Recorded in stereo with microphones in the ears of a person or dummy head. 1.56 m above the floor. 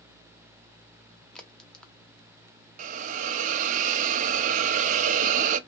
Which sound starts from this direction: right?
A hiss, at 2.8 s.